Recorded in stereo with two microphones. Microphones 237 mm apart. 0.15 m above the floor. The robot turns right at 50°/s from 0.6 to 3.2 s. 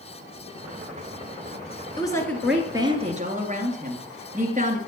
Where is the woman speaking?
155° left, 2 m; by 4.8 s 140° right, 2 m.